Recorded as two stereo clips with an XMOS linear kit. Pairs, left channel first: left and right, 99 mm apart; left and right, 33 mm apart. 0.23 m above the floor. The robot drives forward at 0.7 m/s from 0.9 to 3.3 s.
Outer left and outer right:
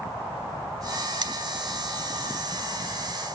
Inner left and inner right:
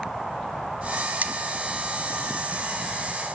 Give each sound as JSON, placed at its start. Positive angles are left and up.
{"t": 1.2, "sound": "cutlery clinking", "side_deg": -50, "distance_m": 1.1}